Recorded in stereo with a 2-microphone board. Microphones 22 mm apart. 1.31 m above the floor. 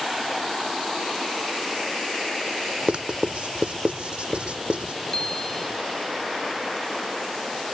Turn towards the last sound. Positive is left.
turn(degrees=15)  # may be behind; listen again after turning